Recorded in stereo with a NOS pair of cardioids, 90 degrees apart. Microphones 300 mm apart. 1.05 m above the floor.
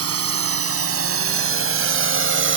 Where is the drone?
50° right; by 2.6 s 40° right.